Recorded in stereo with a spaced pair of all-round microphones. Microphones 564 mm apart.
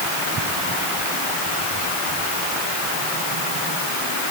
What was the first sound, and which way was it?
Only background noise.